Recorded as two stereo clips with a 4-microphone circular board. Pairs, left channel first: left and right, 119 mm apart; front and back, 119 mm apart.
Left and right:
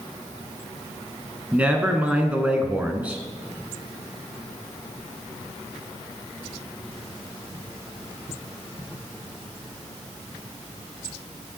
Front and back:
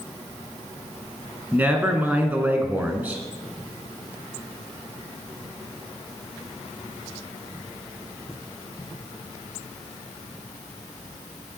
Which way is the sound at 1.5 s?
140° right.